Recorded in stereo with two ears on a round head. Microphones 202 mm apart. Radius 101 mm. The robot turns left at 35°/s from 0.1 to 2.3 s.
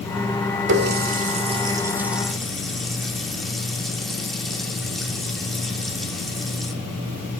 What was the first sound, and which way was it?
A running tap, 55° right (ahead or behind).